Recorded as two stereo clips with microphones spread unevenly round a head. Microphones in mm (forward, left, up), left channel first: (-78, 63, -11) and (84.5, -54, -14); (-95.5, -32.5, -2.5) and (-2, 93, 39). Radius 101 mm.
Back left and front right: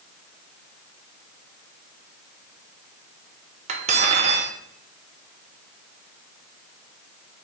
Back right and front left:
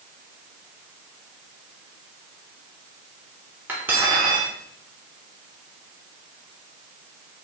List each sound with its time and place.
3.7 s cutlery clinking: straight ahead, 0.6 m